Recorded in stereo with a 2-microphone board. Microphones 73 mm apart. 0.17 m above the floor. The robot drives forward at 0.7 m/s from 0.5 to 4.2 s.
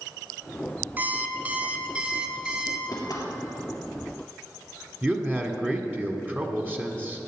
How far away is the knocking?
About 3.5 m.